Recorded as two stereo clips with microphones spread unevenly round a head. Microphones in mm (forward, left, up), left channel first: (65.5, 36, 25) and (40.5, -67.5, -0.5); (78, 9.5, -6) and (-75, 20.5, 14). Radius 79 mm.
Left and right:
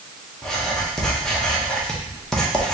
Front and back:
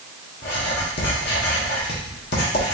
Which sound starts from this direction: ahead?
Writing, at 0.4 s.